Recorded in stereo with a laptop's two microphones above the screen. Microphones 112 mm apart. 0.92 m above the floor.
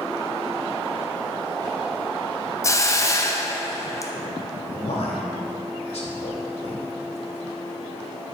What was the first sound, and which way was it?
A hiss, 25° left (ahead or behind).